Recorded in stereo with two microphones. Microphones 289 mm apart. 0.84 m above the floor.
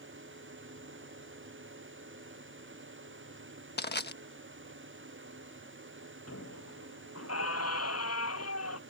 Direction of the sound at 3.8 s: 40° left (ahead or behind).